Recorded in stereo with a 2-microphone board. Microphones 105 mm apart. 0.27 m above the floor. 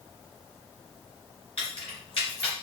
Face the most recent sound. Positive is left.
turn(degrees=60)  # may be behind; listen again after turning